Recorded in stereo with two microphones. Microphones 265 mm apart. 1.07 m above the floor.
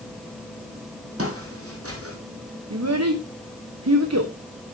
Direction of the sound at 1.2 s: 60° right (ahead or behind).